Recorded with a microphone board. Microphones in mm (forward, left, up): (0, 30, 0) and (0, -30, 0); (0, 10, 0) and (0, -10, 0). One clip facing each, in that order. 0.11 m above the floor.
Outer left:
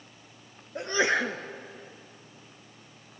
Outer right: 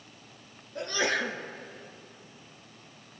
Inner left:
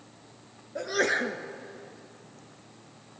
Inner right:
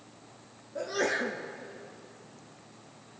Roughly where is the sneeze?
Left.